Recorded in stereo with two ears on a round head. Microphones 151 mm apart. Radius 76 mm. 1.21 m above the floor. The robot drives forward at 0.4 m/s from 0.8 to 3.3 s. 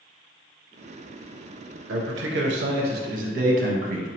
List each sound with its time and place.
1.9 s a man speaking: 85° right, 0.7 m; by 4.1 s 50° right (ahead or behind), 0.8 m